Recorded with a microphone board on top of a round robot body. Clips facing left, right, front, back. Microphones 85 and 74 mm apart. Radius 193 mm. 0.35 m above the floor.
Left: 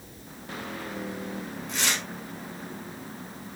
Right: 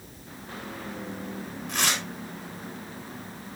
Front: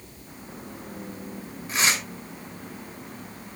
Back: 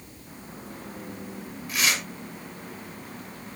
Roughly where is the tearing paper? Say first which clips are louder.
Right 2 dB, front 2 dB; ahead right.